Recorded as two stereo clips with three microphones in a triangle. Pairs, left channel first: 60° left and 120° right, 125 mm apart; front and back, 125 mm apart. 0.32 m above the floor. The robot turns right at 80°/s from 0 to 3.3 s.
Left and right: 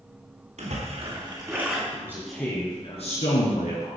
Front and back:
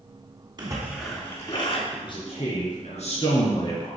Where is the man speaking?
60° right, 4 m; by 4.0 s 50° left, 4 m.